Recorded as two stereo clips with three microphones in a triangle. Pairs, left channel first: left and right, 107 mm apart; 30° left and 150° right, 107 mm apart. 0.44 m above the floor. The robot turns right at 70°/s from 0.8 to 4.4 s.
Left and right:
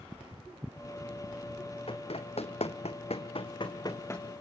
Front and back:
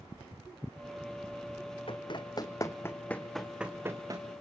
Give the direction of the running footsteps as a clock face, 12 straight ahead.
10 o'clock.